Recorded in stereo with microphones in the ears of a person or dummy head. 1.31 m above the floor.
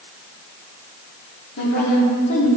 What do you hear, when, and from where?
1.6 s a woman speaking: 50° left (ahead or behind), 3.5 m